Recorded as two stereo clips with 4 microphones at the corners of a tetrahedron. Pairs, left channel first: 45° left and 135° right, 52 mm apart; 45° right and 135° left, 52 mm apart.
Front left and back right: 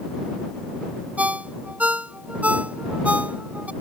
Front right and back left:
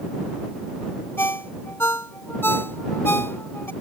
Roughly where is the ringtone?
Right.